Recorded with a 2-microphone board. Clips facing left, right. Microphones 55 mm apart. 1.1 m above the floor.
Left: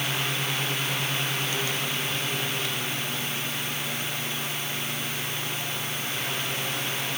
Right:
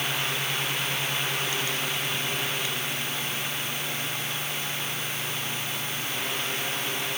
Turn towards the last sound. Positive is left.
No sound to turn to.